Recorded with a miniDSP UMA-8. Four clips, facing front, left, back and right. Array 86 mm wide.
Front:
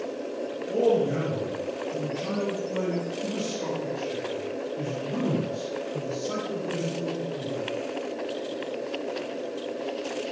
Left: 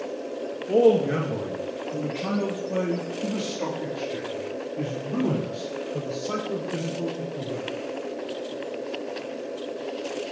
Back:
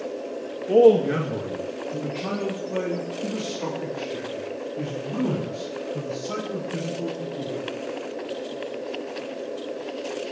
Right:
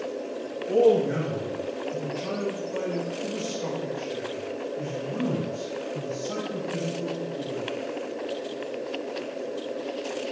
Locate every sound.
0.7 s a man speaking: 155° left, 2 m; by 7.6 s 90° left, 6.5 m